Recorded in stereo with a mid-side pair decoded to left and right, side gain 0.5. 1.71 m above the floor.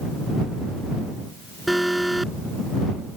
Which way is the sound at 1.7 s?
5° right.